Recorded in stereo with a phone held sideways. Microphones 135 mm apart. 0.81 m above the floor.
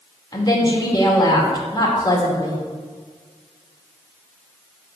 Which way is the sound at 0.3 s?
30° left (ahead or behind).